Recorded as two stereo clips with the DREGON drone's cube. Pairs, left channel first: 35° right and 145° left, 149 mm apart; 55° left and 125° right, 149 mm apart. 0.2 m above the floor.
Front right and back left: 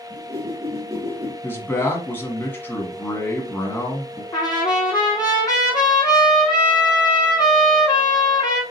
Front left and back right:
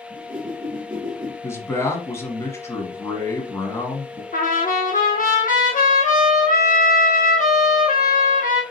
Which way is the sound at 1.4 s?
15° left.